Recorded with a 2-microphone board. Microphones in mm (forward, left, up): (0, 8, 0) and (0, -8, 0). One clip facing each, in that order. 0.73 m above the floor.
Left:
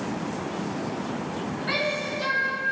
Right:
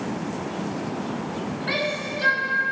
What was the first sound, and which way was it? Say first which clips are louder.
A shout: even; 15° right (ahead or behind).